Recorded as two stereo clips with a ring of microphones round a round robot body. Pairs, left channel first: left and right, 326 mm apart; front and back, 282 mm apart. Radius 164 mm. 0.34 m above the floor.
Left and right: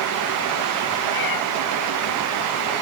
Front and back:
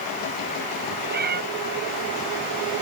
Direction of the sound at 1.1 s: 120° left.